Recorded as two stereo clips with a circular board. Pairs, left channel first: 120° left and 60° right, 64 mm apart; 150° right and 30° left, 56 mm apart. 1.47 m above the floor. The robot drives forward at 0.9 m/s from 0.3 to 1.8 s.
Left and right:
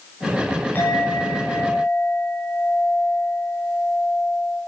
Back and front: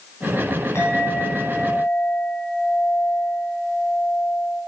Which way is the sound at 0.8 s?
Straight behind.